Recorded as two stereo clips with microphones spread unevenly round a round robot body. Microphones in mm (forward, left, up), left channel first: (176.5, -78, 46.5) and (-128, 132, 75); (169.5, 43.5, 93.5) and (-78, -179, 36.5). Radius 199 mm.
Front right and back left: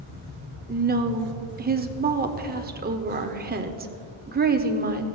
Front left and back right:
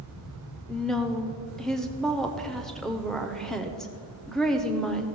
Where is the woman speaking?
155° left, 0.9 m.